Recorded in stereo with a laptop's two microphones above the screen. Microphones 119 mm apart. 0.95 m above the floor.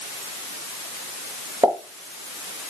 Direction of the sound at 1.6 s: 35° right (ahead or behind).